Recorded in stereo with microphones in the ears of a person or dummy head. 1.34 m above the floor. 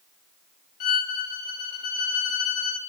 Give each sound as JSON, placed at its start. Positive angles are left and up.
{"t": 0.8, "sound": "a violin", "side_deg": 55, "distance_m": 1.2}